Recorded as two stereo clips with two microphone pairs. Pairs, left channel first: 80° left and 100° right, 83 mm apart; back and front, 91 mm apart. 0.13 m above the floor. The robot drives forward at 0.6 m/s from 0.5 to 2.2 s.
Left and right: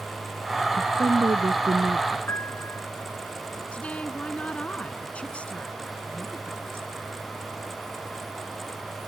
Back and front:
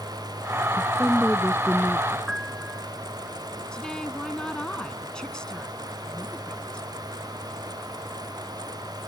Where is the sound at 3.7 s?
115° left.